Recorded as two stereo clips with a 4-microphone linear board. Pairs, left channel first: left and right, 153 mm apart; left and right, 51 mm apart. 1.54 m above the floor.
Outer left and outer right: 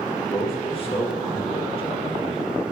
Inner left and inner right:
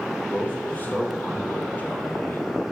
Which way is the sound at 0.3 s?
40° left (ahead or behind).